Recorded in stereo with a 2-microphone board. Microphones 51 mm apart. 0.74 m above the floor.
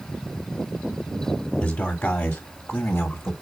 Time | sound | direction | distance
1.6 | a man speaking | 30° left (ahead or behind) | 2 m